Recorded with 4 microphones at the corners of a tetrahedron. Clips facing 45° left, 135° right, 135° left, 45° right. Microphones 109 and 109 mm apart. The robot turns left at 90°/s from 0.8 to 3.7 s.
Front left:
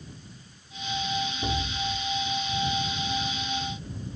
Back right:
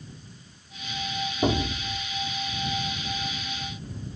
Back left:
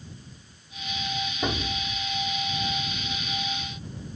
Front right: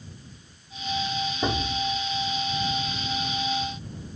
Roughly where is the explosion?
Behind right.